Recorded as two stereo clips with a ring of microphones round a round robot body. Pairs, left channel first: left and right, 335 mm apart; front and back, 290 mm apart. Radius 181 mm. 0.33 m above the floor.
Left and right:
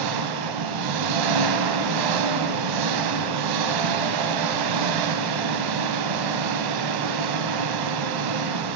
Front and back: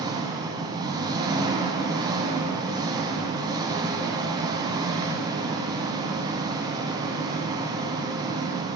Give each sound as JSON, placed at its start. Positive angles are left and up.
{"t": 0.0, "sound": "an engine running", "azimuth_deg": -100, "distance_m": 0.8}